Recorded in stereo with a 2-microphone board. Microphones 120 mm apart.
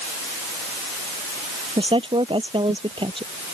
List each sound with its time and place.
1.8 s a woman speaking: 45° right (ahead or behind)